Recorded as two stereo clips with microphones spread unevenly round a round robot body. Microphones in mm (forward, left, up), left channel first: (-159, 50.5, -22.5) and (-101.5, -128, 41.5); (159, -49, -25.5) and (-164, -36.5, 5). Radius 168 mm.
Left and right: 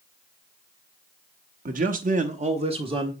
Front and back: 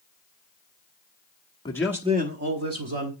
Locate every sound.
1.6 s a man speaking: 40° right, 1.0 m; by 3.1 s 145° right, 2.0 m